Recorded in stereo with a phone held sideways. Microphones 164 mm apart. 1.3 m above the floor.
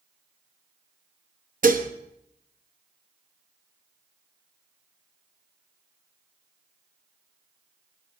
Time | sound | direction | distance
1.6 | dishes clattering | 55° right (ahead or behind) | 0.9 m